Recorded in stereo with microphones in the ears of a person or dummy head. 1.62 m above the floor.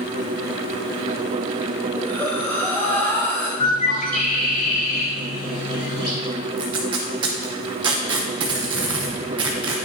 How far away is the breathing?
About 1.1 m.